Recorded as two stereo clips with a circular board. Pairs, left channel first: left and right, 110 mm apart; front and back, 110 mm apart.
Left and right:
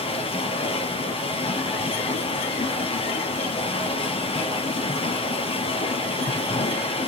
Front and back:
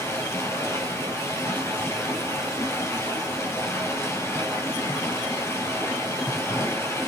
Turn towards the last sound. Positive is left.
turn(degrees=65)